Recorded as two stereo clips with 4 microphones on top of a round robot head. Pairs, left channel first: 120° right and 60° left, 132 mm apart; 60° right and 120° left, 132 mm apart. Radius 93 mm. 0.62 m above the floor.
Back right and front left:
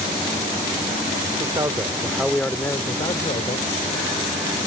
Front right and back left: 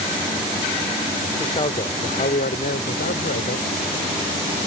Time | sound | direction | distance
1.4 | a man speaking | straight ahead | ?